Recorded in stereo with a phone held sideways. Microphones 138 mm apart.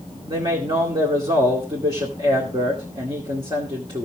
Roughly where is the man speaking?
Right.